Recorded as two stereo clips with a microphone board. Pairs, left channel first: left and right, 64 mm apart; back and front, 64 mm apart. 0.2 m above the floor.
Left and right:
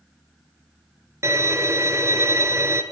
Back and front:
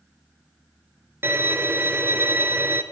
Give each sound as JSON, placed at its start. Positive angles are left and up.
{"t": 1.2, "sound": "a violin", "azimuth_deg": -50, "distance_m": 1.5}